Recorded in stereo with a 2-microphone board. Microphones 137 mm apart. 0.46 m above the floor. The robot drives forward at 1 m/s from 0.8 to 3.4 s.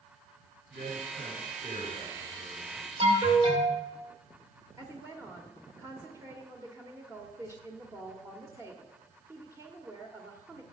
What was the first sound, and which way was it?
A man speaking, 80° right.